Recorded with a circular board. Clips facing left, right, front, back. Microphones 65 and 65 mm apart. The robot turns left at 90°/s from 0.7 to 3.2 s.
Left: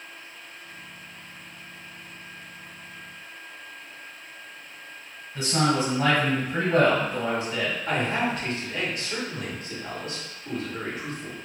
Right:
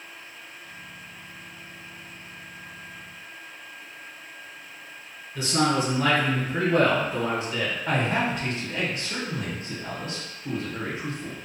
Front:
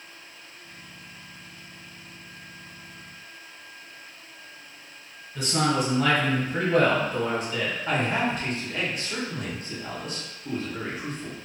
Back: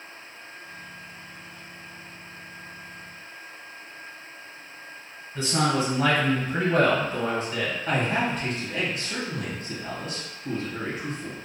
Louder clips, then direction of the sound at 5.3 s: Even, even; 135° left.